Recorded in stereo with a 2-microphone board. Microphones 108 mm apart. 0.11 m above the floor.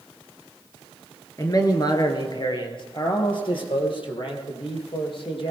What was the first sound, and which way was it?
A man speaking, 35° left (ahead or behind).